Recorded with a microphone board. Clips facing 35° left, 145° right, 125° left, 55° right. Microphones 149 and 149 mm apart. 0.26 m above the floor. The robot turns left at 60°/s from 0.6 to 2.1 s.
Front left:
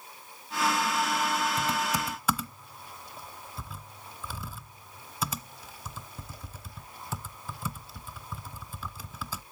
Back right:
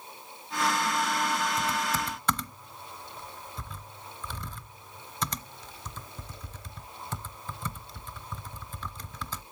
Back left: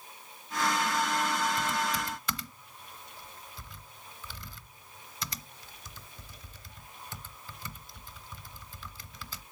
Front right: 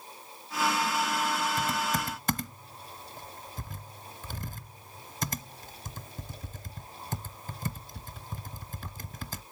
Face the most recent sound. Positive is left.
turn(degrees=-45)